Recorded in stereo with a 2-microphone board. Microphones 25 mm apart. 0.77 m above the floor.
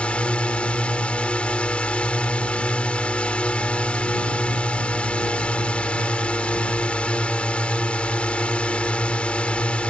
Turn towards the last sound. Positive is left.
turn(degrees=60)  # may be behind; listen again after turning